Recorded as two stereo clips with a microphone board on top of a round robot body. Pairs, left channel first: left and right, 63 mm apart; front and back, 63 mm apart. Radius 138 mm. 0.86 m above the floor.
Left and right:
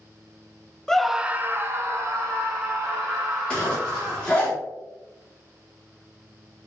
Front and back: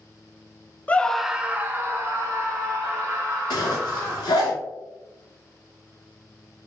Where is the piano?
I don't hear a piano.